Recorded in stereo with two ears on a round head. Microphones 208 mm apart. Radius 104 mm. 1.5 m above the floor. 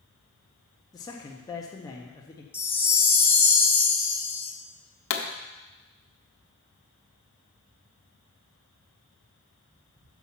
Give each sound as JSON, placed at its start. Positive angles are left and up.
{"t": 0.9, "sound": "a man speaking", "side_deg": 15, "distance_m": 0.7}
{"t": 2.5, "sound": "a chime", "side_deg": 10, "distance_m": 0.7}
{"t": 5.1, "sound": "a pop", "side_deg": 60, "distance_m": 0.9}